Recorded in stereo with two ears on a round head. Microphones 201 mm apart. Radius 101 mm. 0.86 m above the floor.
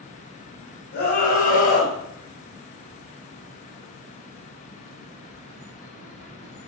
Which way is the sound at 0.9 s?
45° left (ahead or behind).